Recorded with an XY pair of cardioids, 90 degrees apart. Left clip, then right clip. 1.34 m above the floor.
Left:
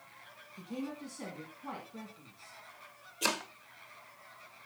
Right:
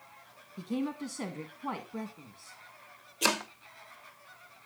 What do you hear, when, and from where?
0.6 s a woman speaking: 65° right, 2 m
3.2 s chopping: 30° right, 0.9 m